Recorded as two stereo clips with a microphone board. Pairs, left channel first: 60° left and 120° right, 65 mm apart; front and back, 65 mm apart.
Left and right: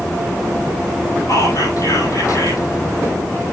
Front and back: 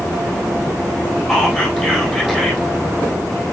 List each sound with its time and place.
1.3 s whispering: 95° left, 3.5 m